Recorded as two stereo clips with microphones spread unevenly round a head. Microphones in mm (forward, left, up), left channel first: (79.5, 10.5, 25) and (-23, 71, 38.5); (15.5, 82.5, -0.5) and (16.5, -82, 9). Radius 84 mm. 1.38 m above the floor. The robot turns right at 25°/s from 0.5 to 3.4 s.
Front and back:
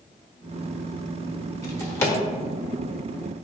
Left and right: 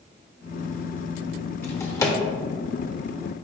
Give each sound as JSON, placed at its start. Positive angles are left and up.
{"t": 1.6, "sound": "a drawer", "azimuth_deg": 20, "distance_m": 1.2}